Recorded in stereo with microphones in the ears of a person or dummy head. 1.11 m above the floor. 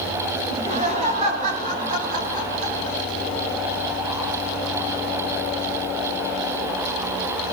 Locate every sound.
0.5 s laughter: 30° right (ahead or behind), 7 m; by 3.0 s 60° right (ahead or behind), 6.5 m